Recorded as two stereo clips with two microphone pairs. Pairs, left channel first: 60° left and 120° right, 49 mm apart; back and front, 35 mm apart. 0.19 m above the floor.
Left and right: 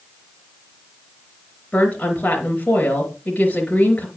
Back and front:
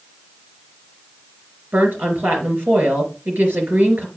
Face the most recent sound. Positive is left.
turn(degrees=5)